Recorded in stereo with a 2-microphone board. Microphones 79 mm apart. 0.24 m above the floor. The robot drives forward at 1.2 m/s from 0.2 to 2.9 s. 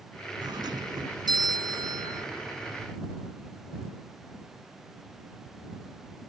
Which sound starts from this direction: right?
A doorbell, at 0.4 s.